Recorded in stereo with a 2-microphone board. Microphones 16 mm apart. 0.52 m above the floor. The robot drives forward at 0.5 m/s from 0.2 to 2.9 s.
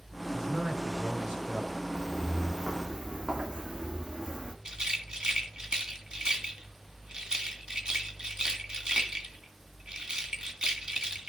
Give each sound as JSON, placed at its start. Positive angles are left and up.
{"t": 0.3, "sound": "a man speaking", "side_deg": -55, "distance_m": 6.0}
{"t": 1.9, "sound": "footsteps", "side_deg": -60, "distance_m": 2.5}
{"t": 4.7, "sound": "a rattle", "side_deg": -65, "distance_m": 2.0}